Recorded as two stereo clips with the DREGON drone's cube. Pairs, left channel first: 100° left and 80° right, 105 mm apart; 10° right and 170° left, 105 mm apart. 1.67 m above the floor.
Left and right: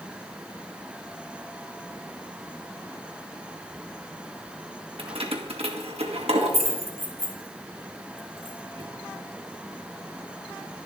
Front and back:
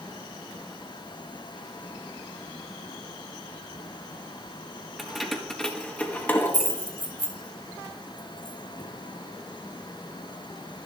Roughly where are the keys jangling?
Right.